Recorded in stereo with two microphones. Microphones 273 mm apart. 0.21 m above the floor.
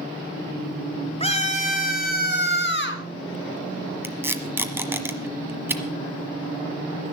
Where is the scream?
20° left (ahead or behind), 1.5 m; by 3.0 s 45° left (ahead or behind), 2 m.